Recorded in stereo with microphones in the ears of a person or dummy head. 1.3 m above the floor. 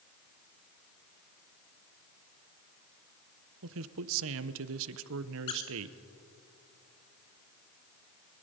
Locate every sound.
3.6 s a man speaking: 70° right (ahead or behind), 1.0 m
5.5 s a squeak: 20° left (ahead or behind), 1.3 m